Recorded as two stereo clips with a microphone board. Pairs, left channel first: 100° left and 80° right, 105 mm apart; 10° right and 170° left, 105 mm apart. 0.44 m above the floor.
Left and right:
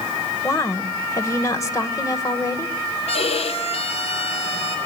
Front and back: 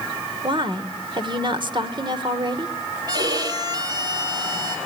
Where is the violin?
120° left, 2 m.